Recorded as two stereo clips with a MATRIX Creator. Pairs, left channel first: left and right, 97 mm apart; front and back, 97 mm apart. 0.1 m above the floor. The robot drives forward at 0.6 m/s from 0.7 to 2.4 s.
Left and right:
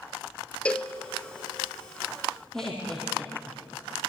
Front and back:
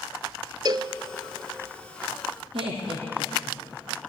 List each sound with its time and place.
0.7 s a cowbell: 165° left, 0.9 m
2.5 s laughter: 175° left, 3.5 m